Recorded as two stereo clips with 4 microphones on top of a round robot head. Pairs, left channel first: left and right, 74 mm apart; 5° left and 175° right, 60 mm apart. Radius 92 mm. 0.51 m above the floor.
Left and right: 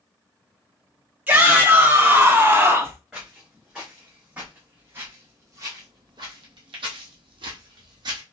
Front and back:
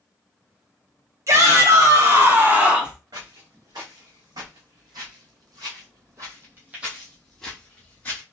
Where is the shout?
160° right, 2.5 m; by 3.0 s 100° right, 1.4 m.